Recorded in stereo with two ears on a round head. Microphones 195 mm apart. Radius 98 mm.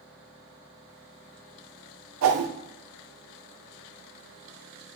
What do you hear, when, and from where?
2.2 s a whoosh: 65° right (ahead or behind), 0.5 m